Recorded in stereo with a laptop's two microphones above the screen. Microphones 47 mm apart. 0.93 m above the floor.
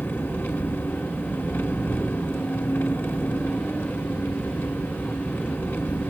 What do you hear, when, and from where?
0.0 s an engine running: 55° left (ahead or behind), 1.4 m